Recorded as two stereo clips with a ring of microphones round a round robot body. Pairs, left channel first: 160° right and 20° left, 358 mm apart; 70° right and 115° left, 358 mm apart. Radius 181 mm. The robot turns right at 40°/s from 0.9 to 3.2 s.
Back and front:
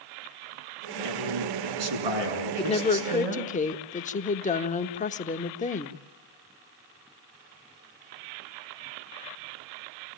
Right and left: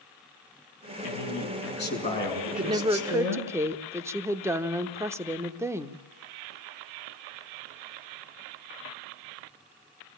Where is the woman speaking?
155° left, 0.9 m; by 6.0 s straight behind, 0.9 m.